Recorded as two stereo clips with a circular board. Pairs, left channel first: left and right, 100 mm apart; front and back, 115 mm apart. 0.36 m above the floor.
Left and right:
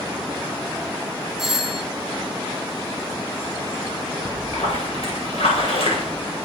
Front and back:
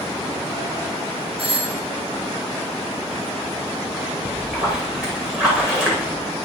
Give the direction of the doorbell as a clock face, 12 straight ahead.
6 o'clock.